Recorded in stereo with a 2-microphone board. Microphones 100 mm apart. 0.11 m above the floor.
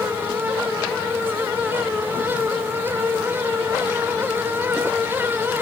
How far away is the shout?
No shout in this recording.